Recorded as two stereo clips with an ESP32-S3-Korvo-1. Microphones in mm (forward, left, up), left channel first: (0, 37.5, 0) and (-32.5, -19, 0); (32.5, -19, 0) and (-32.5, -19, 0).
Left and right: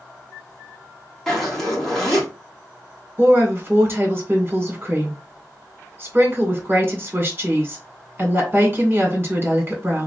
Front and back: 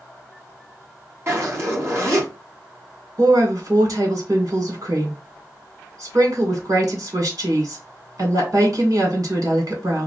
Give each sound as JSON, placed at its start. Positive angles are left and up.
{"t": 1.3, "sound": "a zipper", "azimuth_deg": 145, "distance_m": 1.7}
{"t": 3.2, "sound": "a woman speaking", "azimuth_deg": -175, "distance_m": 1.8}